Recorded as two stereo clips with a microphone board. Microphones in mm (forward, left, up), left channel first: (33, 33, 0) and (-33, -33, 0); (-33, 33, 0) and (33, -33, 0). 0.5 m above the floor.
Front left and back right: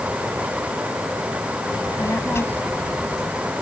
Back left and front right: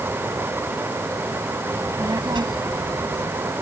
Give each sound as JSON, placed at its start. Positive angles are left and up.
{"t": 1.7, "sound": "a child speaking", "azimuth_deg": 5}